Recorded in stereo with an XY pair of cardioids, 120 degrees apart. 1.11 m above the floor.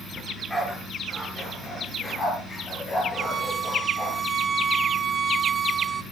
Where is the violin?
30° right, 0.8 m.